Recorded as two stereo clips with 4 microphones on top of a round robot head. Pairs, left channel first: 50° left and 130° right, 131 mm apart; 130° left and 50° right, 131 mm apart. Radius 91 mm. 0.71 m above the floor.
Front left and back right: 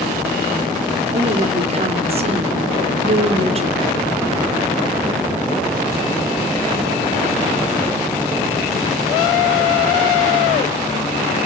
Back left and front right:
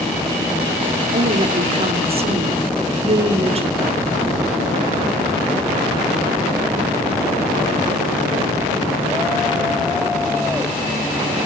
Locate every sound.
1.1 s a woman speaking: 90° right, 3 m